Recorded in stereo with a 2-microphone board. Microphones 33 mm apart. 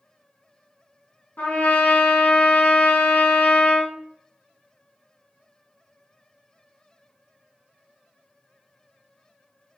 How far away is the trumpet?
About 1.3 m.